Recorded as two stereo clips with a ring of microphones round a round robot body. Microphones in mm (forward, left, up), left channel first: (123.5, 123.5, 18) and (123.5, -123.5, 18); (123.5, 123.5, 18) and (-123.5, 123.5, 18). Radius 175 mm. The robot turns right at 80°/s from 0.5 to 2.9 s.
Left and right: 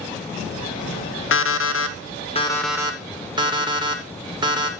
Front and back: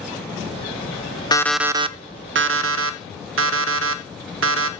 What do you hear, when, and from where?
1.3 s an alarm clock: 70° left, 0.6 m; by 4.7 s 160° right, 0.6 m